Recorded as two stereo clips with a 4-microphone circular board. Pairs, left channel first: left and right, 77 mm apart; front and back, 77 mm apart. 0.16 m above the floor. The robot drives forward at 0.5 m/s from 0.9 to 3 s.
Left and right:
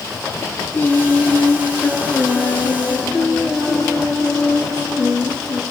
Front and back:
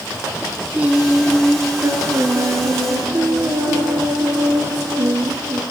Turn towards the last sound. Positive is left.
turn(degrees=165)